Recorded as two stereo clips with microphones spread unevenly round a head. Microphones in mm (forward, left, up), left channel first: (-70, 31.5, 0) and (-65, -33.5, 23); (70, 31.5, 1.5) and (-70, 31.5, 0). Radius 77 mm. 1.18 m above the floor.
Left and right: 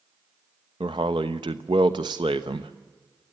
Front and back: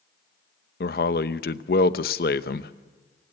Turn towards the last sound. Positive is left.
turn(degrees=-35)